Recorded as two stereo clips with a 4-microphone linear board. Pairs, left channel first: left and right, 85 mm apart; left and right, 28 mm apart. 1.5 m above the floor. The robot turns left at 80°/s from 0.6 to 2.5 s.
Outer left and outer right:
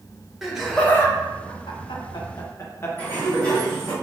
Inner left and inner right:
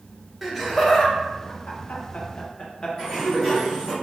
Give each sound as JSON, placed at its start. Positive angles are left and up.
{"t": 0.4, "sound": "laughter", "side_deg": -5, "distance_m": 0.9}
{"t": 3.0, "sound": "a sliding door", "side_deg": 20, "distance_m": 1.8}